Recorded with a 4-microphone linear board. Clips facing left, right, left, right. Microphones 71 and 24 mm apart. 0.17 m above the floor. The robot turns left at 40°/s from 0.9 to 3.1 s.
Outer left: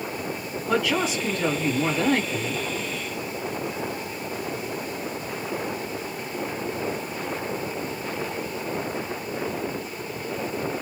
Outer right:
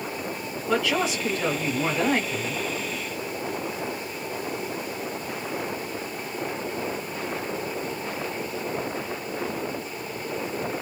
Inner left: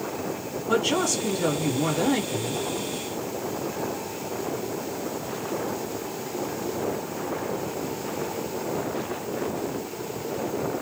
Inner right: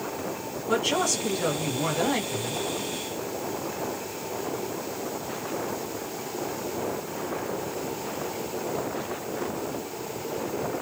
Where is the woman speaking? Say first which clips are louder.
Outer left 1 dB, inner left 1 dB; 5° left (ahead or behind), 1.6 m; by 2.6 s 20° right (ahead or behind), 1.6 m.